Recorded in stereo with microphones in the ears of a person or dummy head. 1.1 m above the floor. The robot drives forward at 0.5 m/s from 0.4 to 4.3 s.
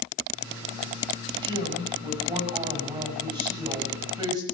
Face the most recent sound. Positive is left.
turn(degrees=-25)  # may be behind; listen again after turning